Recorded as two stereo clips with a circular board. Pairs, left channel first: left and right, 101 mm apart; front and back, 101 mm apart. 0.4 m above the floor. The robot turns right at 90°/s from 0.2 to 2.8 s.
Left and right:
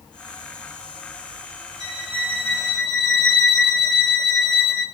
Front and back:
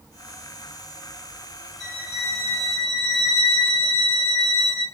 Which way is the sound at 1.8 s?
130° right.